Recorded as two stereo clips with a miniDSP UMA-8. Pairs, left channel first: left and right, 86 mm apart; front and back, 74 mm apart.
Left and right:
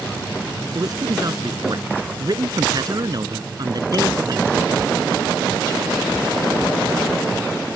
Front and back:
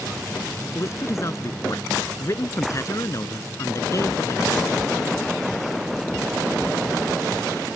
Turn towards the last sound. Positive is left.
turn(degrees=-45)